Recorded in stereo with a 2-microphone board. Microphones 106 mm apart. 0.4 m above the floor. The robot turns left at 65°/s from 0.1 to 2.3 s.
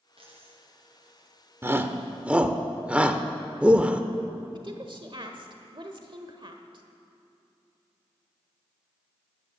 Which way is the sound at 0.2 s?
50° right (ahead or behind).